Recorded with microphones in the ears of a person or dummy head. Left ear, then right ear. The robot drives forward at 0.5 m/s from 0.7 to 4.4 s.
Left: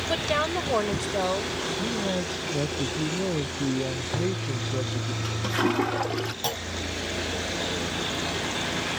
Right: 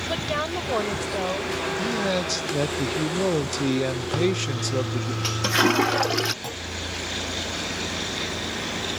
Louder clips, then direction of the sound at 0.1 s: Left 2 dB; 10° left (ahead or behind).